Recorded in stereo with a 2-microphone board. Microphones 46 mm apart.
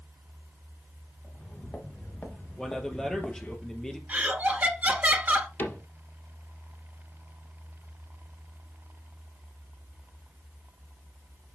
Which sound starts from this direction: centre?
A man speaking, at 2.6 s.